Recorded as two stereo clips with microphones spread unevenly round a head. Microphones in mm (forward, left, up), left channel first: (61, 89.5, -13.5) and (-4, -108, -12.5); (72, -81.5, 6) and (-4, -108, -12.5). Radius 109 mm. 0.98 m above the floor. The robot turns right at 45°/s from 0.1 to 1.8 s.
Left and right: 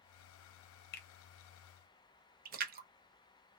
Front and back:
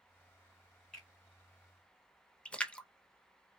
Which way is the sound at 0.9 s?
110° left.